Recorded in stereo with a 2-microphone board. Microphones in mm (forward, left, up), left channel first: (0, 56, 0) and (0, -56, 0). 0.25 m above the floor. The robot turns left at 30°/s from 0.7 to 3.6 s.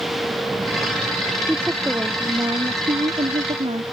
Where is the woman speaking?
5° right; by 3.8 s 70° right.